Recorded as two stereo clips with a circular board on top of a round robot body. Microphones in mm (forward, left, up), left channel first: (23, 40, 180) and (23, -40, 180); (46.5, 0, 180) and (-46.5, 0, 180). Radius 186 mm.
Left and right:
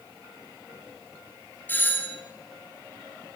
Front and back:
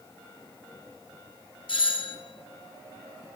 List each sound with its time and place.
1.7 s a doorbell: 25° left, 4 m